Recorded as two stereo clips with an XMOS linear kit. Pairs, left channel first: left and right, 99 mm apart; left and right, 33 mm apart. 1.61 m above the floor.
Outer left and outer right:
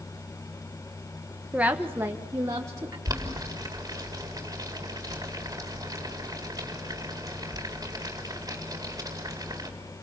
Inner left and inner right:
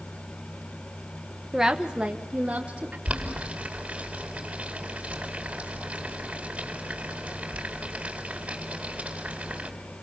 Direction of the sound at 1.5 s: 10° right (ahead or behind).